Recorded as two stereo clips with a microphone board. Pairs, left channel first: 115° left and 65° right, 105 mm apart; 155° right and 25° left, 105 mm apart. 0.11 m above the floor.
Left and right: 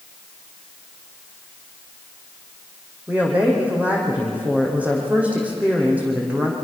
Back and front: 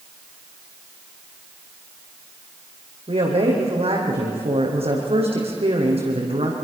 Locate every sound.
3.1 s a woman speaking: 10° left, 6.5 m